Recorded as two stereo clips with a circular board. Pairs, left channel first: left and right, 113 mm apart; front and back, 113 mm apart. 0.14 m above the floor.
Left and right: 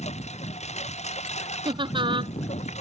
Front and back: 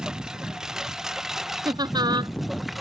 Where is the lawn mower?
95° left; by 2.8 s 90° left.